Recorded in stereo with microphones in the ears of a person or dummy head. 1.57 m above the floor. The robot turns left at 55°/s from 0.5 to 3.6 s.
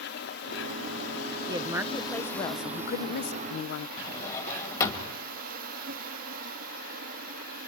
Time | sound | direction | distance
0.0 | an insect | 115° left | 0.7 m
1.5 | a woman speaking | 150° right | 0.8 m
4.0 | a drawer | 20° left (ahead or behind) | 2 m